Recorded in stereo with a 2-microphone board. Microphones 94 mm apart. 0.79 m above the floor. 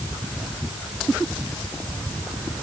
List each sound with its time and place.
Only background noise.